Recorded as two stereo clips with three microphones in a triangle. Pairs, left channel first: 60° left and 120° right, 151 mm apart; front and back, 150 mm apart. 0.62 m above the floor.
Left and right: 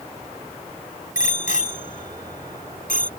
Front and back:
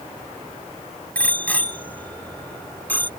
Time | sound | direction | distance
1.1 | a bicycle bell | 80° left | ?